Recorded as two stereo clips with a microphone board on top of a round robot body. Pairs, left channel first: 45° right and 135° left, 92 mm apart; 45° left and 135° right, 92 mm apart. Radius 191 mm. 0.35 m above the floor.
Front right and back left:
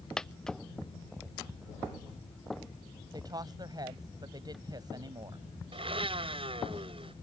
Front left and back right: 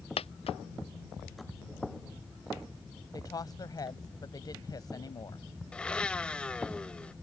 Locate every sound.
0.2 s a dropped coin: 40° left
3.1 s a woman speaking: 90° left
5.7 s a blender: 125° left